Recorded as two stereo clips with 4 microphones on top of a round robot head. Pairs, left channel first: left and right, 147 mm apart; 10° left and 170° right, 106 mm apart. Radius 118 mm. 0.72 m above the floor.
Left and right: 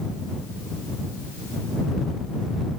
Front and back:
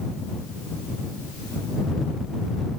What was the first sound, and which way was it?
Only background noise.